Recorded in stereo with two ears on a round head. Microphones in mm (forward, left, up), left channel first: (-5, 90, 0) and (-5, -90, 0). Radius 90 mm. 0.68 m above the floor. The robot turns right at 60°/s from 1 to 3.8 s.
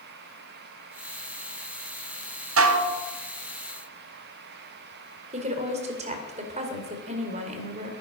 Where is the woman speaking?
35° right (ahead or behind), 2.5 m.